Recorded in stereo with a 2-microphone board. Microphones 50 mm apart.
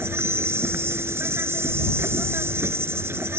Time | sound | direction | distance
0.0 | an insect | 60° right (ahead or behind) | ?